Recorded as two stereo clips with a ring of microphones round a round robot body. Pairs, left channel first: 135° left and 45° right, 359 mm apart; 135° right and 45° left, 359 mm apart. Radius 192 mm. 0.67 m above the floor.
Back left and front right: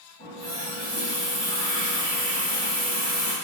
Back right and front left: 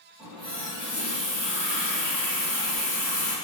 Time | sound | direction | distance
0.2 | a running tap | 20° right | 1.6 m